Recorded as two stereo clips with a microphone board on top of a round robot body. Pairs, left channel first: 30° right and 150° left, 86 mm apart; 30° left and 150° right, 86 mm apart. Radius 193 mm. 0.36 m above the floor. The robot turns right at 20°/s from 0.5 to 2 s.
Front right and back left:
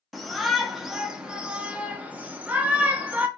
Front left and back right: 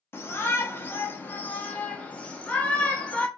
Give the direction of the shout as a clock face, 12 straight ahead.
10 o'clock.